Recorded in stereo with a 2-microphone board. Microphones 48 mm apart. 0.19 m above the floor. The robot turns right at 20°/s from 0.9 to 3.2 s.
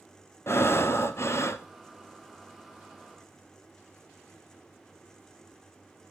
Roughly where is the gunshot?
I don't hear a gunshot.